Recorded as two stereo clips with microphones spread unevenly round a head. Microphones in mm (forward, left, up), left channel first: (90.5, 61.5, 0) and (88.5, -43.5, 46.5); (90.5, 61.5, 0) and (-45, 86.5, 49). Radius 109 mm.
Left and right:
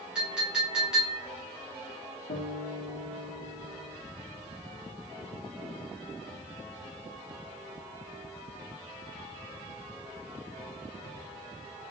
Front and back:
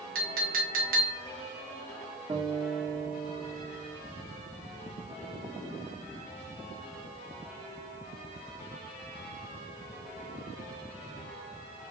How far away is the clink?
About 1.0 m.